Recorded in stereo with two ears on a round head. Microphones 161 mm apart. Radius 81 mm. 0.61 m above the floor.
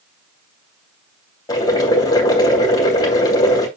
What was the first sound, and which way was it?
Boiling, 20° left (ahead or behind).